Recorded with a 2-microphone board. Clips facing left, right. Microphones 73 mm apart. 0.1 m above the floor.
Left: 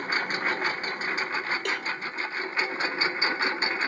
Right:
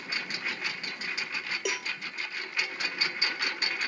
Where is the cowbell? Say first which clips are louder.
Left 3 dB; 10° right (ahead or behind).